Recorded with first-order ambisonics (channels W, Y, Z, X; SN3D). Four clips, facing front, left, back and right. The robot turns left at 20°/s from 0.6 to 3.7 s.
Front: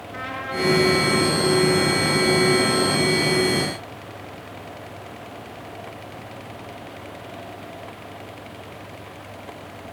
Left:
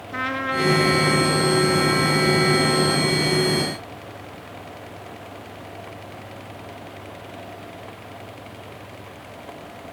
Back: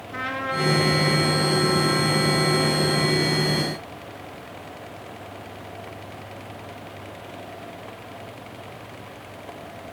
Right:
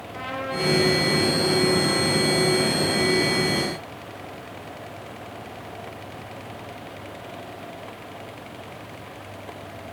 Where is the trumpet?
105° left, 4 m; by 3.1 s 55° left, 4 m.